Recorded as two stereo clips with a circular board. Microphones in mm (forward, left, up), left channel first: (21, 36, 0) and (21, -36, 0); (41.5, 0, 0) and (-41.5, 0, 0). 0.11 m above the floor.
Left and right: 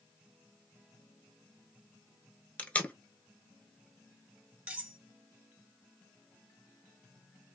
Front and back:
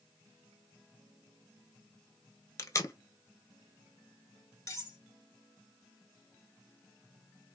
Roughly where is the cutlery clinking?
Ahead right.